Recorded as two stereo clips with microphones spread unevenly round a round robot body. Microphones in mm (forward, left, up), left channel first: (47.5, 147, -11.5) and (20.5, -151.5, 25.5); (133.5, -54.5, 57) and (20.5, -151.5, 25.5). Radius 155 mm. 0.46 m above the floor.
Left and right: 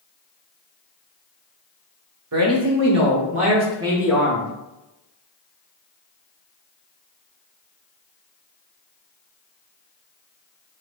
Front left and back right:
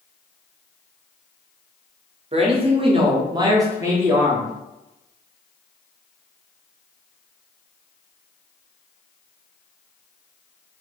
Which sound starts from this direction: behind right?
A man speaking, at 2.3 s.